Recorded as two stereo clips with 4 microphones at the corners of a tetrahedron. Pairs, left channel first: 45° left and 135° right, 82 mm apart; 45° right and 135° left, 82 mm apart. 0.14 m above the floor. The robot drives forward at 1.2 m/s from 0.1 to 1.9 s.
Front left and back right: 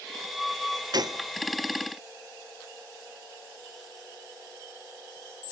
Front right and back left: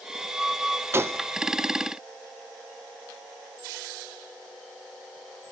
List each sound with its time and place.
0.9 s a gunshot: 165° right, 0.5 m; by 1.3 s 170° right, 0.9 m